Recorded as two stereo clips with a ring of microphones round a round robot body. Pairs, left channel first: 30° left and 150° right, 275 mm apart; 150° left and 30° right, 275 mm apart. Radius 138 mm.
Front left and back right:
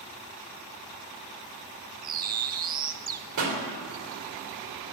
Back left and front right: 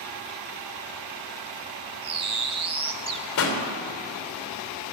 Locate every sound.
2.0 s a bird: 95° right, 0.6 m
3.4 s a pop: 170° right, 3.5 m